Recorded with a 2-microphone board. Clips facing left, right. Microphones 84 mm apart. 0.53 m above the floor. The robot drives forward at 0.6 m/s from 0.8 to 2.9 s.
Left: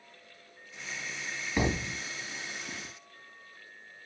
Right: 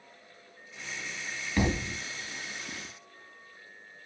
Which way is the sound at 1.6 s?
10° left (ahead or behind).